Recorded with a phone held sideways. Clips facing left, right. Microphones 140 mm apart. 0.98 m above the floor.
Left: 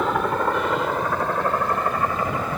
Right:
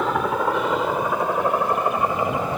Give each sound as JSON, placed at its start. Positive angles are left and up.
{"t": 0.0, "sound": "a helicopter", "side_deg": 0}